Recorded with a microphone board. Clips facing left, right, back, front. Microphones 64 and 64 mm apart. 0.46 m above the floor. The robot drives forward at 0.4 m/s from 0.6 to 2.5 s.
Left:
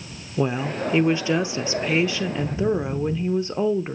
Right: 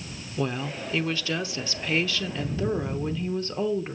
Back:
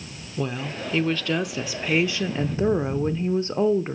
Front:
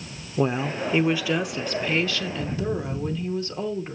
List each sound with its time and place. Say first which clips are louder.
0.4 s a woman speaking: left 6 dB, front 5 dB; 35° left, 0.8 m; by 4.0 s 145° left, 0.9 m